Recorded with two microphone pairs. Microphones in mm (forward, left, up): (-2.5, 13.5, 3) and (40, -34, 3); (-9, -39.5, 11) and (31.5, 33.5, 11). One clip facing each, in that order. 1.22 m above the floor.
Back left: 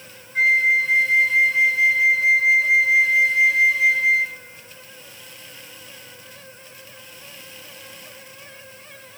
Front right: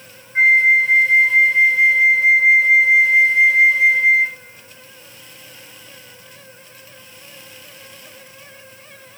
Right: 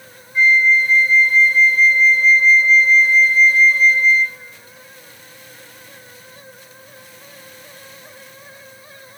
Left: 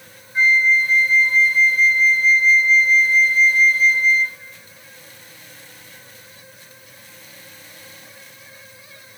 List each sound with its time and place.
0.3 s a flute: 10° left, 0.7 m